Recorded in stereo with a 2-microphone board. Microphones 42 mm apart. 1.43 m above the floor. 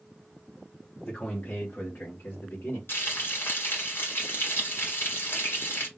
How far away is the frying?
About 1.9 m.